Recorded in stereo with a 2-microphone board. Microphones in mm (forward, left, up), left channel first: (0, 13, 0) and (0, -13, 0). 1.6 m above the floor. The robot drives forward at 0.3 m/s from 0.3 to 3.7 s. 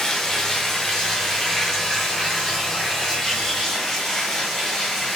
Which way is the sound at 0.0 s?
20° left (ahead or behind).